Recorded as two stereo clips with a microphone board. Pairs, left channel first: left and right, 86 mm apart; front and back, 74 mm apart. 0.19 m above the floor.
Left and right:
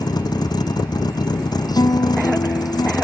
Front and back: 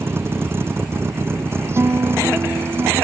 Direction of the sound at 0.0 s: 125° left.